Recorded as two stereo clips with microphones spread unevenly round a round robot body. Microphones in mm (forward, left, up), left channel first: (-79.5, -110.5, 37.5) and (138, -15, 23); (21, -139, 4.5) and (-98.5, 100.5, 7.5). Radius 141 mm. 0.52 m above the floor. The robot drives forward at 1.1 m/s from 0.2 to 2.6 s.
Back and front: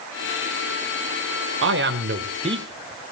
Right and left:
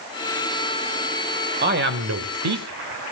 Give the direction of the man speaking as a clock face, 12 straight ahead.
10 o'clock.